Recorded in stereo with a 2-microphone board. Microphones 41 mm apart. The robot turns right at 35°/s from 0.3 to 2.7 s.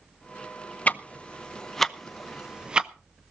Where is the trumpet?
No trumpet in this recording.